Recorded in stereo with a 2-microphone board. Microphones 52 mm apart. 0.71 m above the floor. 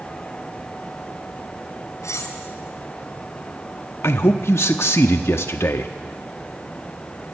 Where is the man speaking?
55° left (ahead or behind), 0.8 m.